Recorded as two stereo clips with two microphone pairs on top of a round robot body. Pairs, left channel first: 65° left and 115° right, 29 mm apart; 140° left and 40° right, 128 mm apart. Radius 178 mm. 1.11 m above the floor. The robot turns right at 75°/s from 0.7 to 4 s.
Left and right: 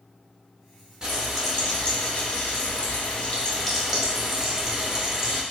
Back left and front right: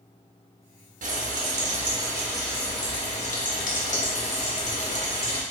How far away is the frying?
About 0.9 m.